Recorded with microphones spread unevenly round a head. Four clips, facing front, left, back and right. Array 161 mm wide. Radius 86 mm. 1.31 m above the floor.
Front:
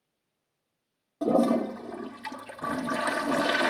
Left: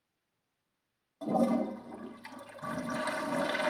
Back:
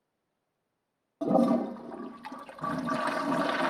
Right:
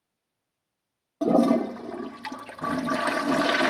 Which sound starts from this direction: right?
A toilet flushing, at 1.2 s.